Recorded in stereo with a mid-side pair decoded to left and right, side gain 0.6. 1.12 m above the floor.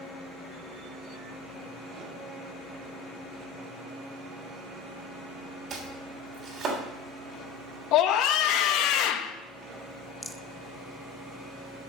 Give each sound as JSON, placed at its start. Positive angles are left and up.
{"t": 5.7, "sound": "chopping", "azimuth_deg": -40, "distance_m": 3.5}
{"t": 7.9, "sound": "a scream", "azimuth_deg": 65, "distance_m": 1.0}
{"t": 10.2, "sound": "a rattle", "azimuth_deg": 5, "distance_m": 0.6}